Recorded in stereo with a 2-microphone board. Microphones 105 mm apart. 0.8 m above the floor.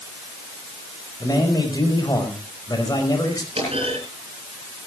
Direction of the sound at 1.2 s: 40° left (ahead or behind).